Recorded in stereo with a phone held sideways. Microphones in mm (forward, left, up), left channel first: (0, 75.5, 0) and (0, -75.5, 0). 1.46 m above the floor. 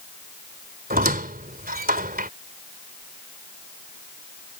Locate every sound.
0.9 s a squeak: 75° right (ahead or behind)